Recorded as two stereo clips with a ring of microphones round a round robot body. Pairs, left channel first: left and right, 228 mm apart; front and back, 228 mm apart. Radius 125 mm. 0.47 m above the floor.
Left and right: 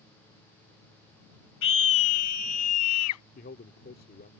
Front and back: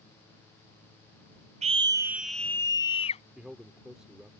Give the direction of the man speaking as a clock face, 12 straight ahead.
9 o'clock.